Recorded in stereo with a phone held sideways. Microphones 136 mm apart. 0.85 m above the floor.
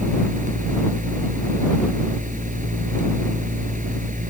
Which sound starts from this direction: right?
A fan, at 0.0 s.